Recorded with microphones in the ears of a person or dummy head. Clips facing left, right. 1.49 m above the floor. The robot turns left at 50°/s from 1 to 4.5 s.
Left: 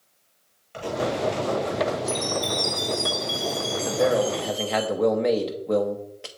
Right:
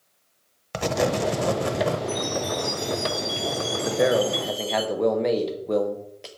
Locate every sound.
0.7 s writing: 90° right, 0.7 m; by 2.0 s 135° right, 0.7 m
2.1 s a chime: 100° left, 1.8 m; by 4.8 s 20° right, 1.8 m
3.9 s a man speaking: 150° right, 0.9 m; by 6.3 s straight behind, 0.9 m